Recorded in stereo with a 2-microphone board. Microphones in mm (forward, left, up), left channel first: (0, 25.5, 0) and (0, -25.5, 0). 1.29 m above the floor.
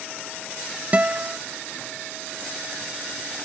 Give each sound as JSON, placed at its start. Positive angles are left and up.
{"t": 0.9, "sound": "a guitar", "side_deg": -30}